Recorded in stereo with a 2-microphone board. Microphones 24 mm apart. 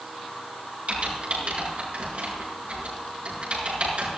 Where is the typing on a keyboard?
65° right (ahead or behind), 5.5 m.